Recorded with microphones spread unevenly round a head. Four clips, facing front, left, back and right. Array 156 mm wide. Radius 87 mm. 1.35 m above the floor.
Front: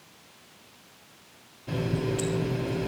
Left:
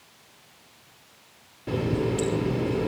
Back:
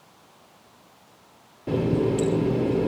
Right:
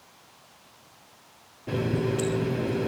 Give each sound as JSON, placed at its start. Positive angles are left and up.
{"t": 1.7, "sound": "a running tap", "azimuth_deg": 175, "distance_m": 2.5}